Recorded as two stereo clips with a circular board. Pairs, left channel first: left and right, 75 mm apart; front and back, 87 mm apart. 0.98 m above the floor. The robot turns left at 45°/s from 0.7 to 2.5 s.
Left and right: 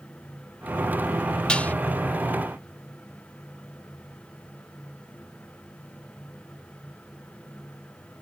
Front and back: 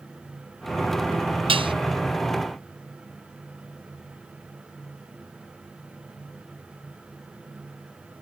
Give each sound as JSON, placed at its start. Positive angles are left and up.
{"t": 1.5, "sound": "dishes clattering", "azimuth_deg": 165}